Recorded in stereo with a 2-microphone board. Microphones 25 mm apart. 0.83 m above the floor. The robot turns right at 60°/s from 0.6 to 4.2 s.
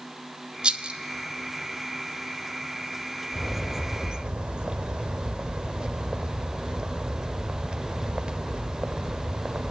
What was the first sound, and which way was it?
A rattle, 45° right (ahead or behind).